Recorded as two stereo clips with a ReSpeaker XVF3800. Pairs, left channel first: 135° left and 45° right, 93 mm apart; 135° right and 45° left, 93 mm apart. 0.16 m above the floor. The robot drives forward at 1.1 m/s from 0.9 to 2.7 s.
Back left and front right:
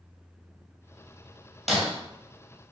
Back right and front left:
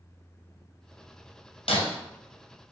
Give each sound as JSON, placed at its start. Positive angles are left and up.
{"t": 1.7, "sound": "breaking glass", "azimuth_deg": -135, "distance_m": 1.1}